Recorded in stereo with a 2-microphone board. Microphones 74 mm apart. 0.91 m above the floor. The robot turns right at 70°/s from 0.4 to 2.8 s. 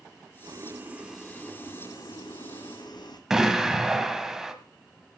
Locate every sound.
0.4 s boiling: 55° right, 1.9 m; by 3.2 s 110° left, 1.9 m
3.3 s an explosion: 5° right (ahead or behind), 1.9 m